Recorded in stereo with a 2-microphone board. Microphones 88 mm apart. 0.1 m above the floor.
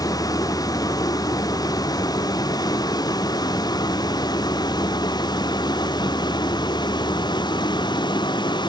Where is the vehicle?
45° left (ahead or behind); by 8.7 s 55° left (ahead or behind).